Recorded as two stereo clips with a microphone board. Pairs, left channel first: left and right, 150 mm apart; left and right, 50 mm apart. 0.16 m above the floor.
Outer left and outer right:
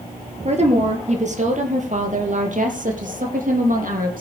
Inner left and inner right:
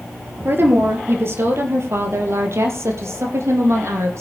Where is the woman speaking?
45° right (ahead or behind), 3 m; by 4.2 s 65° right (ahead or behind), 4.5 m.